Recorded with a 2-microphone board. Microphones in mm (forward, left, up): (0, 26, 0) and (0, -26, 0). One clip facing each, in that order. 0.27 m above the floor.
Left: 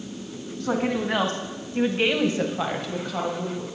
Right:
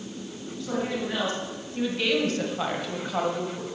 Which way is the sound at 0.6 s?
60° left (ahead or behind).